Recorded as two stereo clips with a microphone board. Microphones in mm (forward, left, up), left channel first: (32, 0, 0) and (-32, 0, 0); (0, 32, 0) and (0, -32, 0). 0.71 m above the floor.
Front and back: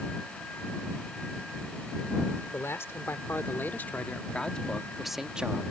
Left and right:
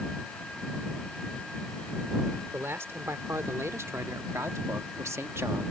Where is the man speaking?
45° right; by 5.7 s 125° right.